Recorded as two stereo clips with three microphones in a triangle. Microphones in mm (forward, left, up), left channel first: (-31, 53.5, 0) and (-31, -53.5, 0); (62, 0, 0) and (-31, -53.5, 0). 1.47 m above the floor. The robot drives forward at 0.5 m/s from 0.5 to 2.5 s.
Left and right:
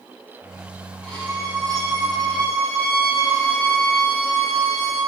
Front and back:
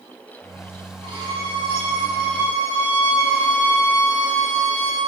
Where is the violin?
170° left, 1.8 m; by 5.0 s 175° left, 2.5 m.